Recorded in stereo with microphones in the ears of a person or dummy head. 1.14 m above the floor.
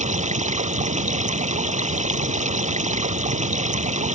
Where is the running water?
35° right (ahead or behind).